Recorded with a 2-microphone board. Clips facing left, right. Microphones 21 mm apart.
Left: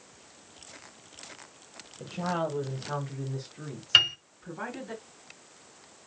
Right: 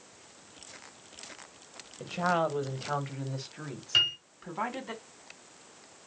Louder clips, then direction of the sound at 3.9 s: Left 4 dB; 45° left (ahead or behind).